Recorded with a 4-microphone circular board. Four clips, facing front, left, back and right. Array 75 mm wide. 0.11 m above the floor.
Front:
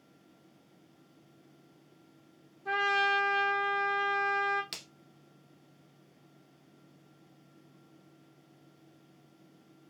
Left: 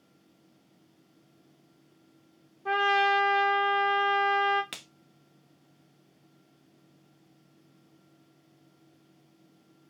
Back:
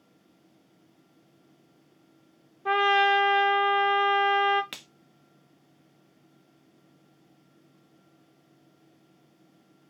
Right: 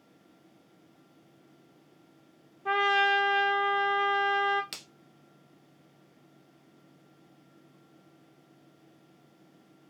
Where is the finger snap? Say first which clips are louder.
Left 2 dB, back 3 dB; 150° left, 1.0 m.